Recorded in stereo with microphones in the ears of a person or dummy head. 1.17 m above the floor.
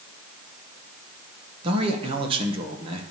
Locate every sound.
1.6 s a man speaking: 30° right (ahead or behind), 0.9 m